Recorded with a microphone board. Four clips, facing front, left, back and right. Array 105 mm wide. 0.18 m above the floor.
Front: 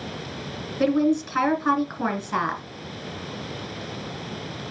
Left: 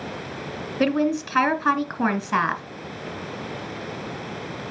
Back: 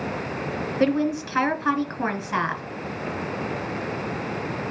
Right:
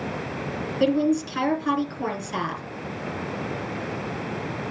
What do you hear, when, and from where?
0.8 s a woman speaking: 95° left, 2 m